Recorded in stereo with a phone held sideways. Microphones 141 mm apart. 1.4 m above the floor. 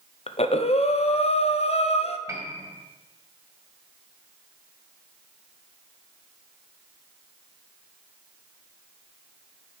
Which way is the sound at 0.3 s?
50° left (ahead or behind).